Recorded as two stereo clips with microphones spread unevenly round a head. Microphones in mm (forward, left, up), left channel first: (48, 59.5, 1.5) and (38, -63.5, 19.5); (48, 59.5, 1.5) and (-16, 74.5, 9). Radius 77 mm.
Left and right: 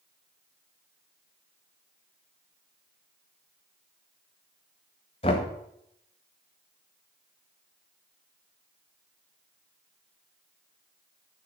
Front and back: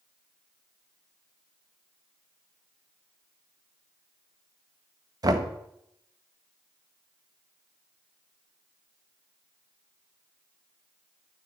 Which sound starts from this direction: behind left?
Knocking, at 5.2 s.